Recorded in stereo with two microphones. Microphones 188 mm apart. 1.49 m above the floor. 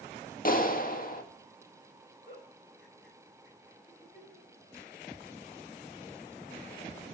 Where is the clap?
50° left (ahead or behind), 1.8 m.